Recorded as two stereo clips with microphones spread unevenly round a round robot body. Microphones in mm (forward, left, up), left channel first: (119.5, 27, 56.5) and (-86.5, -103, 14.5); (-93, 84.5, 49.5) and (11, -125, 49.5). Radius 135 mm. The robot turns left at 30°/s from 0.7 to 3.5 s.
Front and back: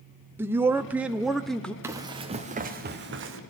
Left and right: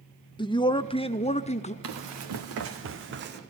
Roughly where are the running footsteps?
Ahead right.